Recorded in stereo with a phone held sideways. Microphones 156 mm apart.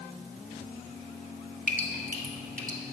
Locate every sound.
1.7 s dripping: 60° right (ahead or behind), 1.2 m